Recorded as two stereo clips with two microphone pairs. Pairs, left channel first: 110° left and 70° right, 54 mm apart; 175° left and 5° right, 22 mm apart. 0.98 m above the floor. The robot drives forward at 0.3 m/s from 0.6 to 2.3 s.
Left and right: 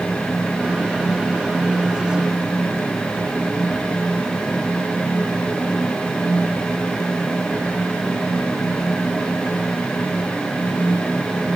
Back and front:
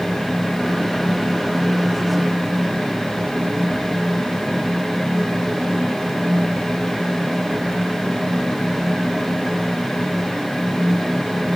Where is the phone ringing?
I don't hear a phone ringing.